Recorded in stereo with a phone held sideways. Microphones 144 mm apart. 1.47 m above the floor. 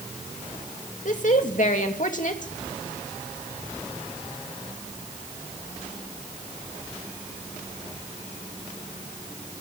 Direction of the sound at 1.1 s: 60° left (ahead or behind).